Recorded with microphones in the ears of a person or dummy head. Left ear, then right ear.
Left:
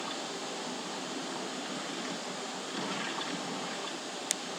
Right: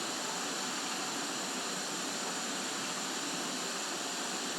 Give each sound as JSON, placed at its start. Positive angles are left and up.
{"t": 0.0, "sound": "running water", "side_deg": -80, "distance_m": 7.5}